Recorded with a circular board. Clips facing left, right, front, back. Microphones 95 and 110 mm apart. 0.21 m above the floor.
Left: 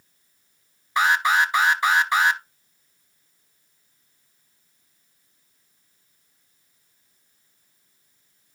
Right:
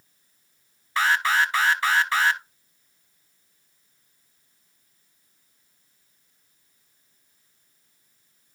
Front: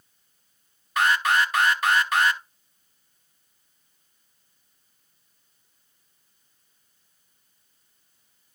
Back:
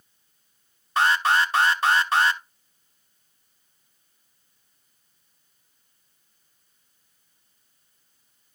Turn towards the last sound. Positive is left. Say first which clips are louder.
# left 2 dB, back 1 dB
turn(degrees=145)